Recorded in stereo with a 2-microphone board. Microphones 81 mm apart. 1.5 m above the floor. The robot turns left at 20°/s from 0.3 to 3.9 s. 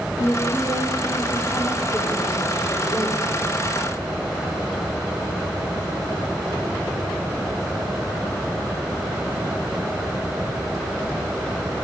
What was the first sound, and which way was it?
A woman speaking, 100° left.